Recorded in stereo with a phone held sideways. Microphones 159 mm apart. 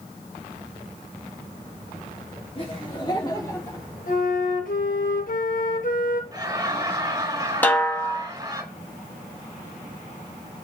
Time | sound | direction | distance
2.5 | laughter | 35° left (ahead or behind) | 3.5 m
4.1 | a flute | 60° left (ahead or behind) | 1.6 m
6.3 | laughter | 25° right (ahead or behind) | 1.8 m
7.6 | a snare drum | 10° left (ahead or behind) | 1.4 m